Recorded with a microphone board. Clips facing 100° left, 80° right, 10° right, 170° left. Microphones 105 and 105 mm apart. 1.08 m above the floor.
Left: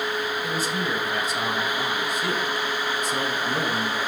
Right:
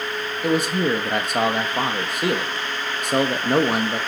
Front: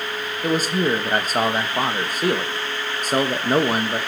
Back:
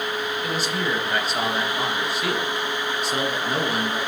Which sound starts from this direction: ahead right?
A man speaking, at 0.4 s.